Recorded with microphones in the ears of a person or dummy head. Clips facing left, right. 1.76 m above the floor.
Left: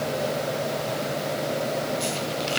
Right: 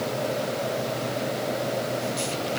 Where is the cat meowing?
I don't hear a cat meowing.